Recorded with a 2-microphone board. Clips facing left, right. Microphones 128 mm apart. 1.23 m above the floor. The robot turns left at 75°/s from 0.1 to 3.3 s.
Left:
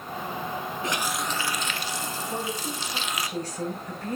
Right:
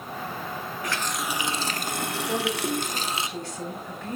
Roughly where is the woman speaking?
Behind right.